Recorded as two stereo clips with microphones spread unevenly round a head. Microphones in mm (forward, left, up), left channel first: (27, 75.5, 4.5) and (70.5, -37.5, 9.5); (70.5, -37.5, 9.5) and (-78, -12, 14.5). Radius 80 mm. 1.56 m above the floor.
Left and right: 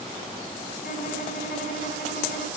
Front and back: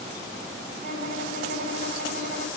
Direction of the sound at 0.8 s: 120° left.